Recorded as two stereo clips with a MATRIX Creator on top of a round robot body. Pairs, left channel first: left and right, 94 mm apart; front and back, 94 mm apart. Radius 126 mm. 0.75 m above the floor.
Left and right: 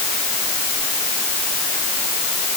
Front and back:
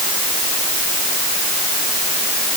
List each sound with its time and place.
Only background noise.